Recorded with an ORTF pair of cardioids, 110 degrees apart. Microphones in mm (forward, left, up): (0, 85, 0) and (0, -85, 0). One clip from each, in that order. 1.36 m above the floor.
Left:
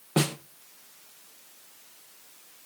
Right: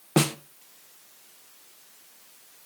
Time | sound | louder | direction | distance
0.2 | a snare drum | right 3 dB | 20° right | 0.7 m